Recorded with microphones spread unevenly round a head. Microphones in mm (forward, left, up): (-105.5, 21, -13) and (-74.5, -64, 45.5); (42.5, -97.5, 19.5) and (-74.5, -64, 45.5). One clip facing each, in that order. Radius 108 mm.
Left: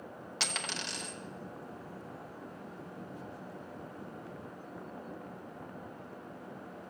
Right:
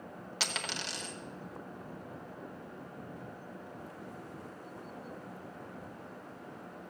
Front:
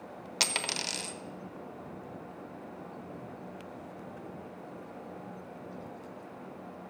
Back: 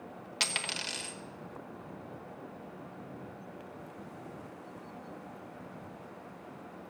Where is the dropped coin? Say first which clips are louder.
Even, front 4 dB; 60° right, 1.0 m.